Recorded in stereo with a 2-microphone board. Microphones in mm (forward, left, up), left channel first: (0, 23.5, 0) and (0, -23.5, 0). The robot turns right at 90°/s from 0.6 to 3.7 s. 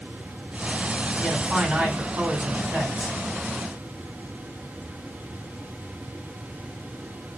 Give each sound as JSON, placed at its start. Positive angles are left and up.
{"t": 1.2, "sound": "a man speaking", "azimuth_deg": 160, "distance_m": 1.2}